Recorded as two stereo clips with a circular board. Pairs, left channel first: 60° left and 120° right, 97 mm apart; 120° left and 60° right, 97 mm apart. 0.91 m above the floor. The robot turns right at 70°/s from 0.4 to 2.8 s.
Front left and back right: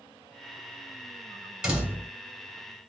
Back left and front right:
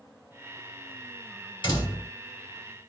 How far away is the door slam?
About 2 m.